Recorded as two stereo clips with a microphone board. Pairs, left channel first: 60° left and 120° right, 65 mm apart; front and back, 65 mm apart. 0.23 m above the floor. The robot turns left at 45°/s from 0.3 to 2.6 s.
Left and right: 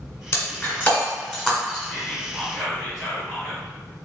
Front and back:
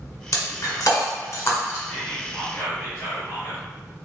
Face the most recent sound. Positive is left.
turn(degrees=-25)